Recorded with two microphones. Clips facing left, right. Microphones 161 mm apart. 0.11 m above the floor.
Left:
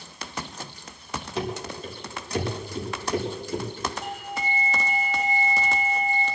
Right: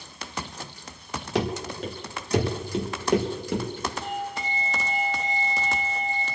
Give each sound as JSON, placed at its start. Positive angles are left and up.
{"t": 1.4, "sound": "running footsteps", "side_deg": -90, "distance_m": 2.5}
{"t": 4.0, "sound": "a doorbell", "side_deg": 10, "distance_m": 5.0}